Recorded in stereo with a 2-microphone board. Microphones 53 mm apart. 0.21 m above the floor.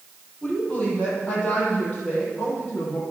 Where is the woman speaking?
20° left (ahead or behind), 6.5 m; by 3.0 s 25° left (ahead or behind), 8 m.